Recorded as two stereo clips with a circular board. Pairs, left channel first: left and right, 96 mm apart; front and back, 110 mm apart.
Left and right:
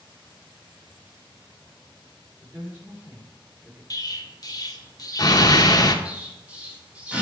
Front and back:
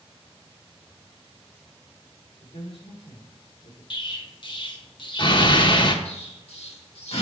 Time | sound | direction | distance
2.4 | a man speaking | 20° right | 3 m
3.9 | an explosion | 40° left | 0.8 m
6.0 | an explosion | 15° right | 1.4 m